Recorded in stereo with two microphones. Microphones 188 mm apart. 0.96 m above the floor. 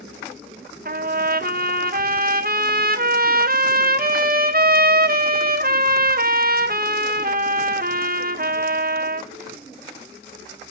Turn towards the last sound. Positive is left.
turn(degrees=-50)  # may be behind; listen again after turning